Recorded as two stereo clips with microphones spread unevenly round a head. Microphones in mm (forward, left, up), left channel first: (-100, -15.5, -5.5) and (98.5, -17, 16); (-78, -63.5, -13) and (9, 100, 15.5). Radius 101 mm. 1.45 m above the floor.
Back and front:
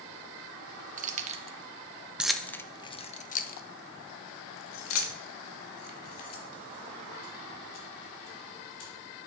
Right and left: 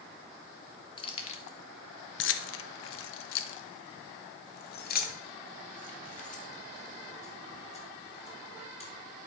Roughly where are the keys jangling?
Ahead right.